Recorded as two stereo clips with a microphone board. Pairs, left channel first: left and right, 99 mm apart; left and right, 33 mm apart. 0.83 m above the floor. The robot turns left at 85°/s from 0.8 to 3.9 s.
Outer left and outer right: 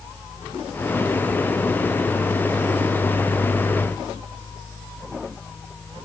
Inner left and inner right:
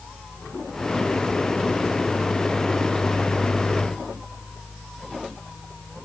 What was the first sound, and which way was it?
Only background noise.